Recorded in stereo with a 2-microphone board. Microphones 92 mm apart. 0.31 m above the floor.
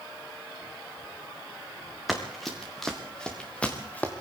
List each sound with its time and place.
2.1 s running footsteps: centre (ahead or behind), 3.5 m; by 4.1 s 20° left (ahead or behind), 2.5 m